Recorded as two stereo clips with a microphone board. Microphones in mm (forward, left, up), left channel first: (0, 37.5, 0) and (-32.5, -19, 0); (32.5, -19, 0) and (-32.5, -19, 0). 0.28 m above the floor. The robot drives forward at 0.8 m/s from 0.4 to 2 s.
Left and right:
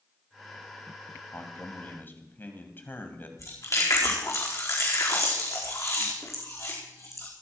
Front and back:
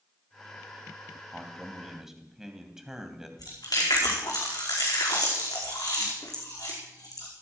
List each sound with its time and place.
1.3 s a man speaking: 80° left, 2 m; by 3.3 s 100° left, 2 m
3.4 s chewing: 20° left, 4.5 m